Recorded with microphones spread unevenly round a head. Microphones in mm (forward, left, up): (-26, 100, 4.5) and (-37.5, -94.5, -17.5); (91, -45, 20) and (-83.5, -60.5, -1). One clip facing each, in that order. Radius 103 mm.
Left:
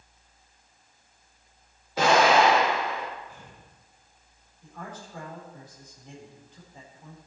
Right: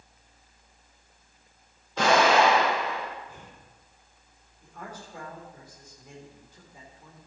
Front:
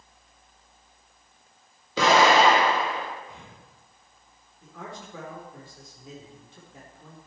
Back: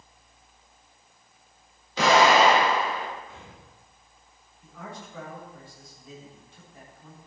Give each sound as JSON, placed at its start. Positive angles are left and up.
{"t": 2.0, "sound": "an explosion", "azimuth_deg": 5, "distance_m": 5.5}
{"t": 3.3, "sound": "breathing", "azimuth_deg": -65, "distance_m": 3.5}
{"t": 4.6, "sound": "a man speaking", "azimuth_deg": -10, "distance_m": 4.0}